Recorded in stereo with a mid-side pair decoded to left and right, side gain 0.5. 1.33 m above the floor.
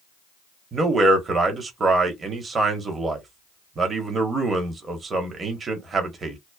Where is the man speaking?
35° right, 1.2 m.